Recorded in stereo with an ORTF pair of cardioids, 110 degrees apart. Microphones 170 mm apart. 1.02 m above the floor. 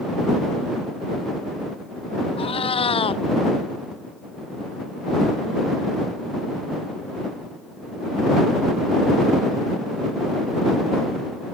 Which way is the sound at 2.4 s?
35° left.